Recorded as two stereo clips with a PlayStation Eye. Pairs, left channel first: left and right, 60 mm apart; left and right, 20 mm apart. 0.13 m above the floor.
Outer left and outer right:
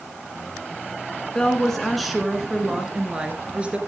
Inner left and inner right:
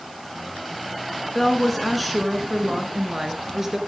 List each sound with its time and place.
1.4 s a woman speaking: 10° left (ahead or behind), 1.6 m; by 3.8 s 20° right (ahead or behind), 2.5 m